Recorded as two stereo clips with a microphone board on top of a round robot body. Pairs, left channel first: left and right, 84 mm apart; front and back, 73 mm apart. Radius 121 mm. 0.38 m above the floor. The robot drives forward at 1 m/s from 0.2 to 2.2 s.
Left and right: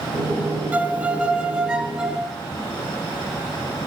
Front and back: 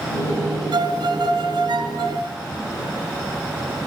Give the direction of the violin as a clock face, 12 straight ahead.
5 o'clock.